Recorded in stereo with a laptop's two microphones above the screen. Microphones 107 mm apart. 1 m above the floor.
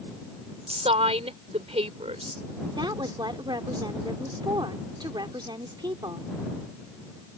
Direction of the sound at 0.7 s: 75° right (ahead or behind).